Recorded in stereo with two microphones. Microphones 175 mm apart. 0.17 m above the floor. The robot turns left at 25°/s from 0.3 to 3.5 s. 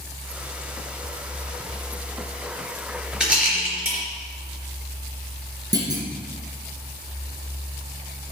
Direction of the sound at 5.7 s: 20° right (ahead or behind).